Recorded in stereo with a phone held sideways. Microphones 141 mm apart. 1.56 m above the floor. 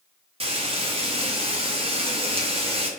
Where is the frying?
45° right (ahead or behind), 0.9 m.